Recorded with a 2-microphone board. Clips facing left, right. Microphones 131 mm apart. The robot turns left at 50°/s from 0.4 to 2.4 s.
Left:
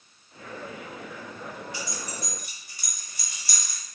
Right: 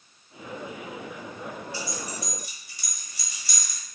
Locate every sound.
1.7 s keys jangling: 20° left (ahead or behind), 1.1 m; by 3.8 s 50° left (ahead or behind), 1.1 m